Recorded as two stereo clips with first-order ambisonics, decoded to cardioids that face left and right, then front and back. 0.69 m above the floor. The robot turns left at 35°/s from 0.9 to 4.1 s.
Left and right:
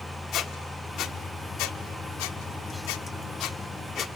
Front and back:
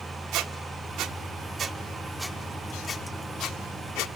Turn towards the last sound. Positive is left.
turn(degrees=30)